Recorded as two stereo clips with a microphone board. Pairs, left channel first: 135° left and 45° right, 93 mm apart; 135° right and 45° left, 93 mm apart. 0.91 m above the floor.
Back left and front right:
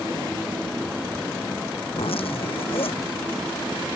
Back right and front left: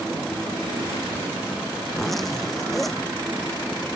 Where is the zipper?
135° left.